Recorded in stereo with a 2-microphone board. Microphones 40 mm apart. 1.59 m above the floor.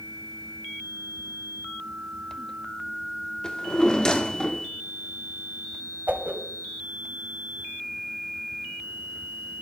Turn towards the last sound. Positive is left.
turn(degrees=-40)  # may be behind; listen again after turning